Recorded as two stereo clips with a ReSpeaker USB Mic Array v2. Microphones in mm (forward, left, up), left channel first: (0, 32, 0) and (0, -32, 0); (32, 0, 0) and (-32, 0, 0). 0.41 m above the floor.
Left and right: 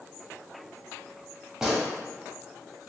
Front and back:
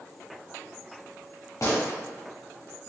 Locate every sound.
1.6 s a gunshot: 10° right, 1.2 m